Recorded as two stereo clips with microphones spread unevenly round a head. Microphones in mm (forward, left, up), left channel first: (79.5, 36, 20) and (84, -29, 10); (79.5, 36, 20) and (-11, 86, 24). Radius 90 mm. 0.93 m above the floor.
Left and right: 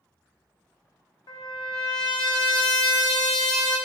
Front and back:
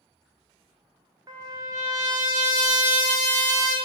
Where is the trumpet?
95° left, 0.6 m.